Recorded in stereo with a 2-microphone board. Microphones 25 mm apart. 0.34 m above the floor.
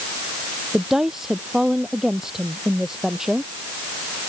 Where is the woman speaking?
25° right (ahead or behind).